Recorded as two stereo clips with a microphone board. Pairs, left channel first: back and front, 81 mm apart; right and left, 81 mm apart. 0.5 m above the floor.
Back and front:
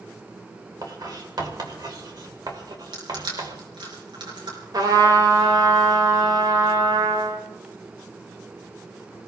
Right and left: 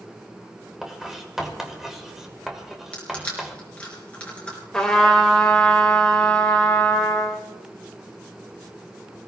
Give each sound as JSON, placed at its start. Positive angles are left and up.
{"t": 0.8, "sound": "writing", "azimuth_deg": 5, "distance_m": 2.5}
{"t": 2.9, "sound": "crushing", "azimuth_deg": -15, "distance_m": 4.5}
{"t": 4.7, "sound": "a trumpet", "azimuth_deg": -10, "distance_m": 2.5}